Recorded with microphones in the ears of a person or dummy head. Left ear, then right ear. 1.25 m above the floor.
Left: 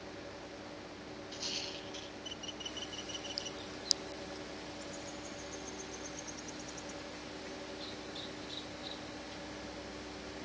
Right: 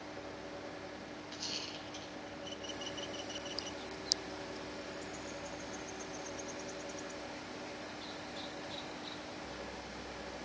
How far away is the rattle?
About 7.5 m.